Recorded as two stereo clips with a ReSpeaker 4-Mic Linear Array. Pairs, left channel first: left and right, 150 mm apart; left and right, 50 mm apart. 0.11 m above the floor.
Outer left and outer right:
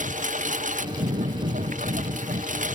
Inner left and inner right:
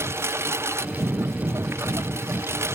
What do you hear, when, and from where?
0.0 s a lawn mower: 60° right (ahead or behind)